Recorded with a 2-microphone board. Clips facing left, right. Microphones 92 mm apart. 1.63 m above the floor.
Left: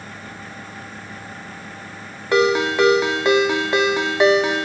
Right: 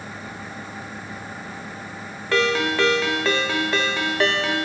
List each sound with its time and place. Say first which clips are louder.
2.3 s a ringtone: left 4 dB; 20° left (ahead or behind), 0.9 m